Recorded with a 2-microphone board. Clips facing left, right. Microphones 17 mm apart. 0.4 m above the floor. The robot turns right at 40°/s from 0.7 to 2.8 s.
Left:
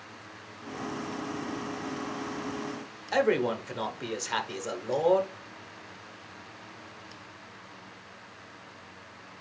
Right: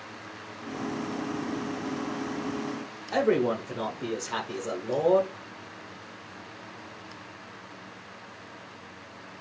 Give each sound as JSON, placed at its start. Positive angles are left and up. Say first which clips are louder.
{"t": 3.1, "sound": "a man speaking", "louder": "right 1 dB", "side_deg": 25, "distance_m": 0.9}